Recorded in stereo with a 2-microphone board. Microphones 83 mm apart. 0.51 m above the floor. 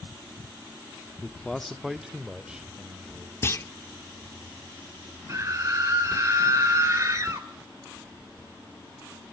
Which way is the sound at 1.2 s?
15° left (ahead or behind).